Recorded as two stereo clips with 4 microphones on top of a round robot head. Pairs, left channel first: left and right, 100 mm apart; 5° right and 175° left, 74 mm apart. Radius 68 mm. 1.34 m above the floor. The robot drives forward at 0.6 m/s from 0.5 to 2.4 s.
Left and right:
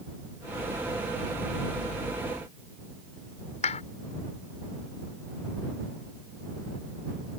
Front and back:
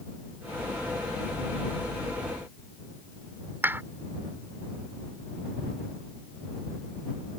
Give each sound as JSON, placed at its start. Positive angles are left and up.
{"t": 3.6, "sound": "a clap", "azimuth_deg": 110}